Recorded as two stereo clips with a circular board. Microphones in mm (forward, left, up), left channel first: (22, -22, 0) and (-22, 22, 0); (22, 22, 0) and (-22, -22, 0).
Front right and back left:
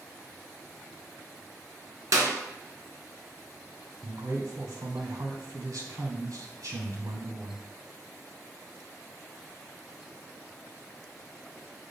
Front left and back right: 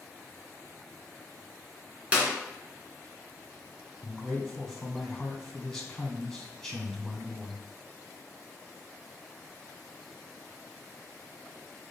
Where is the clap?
155° left, 2 m.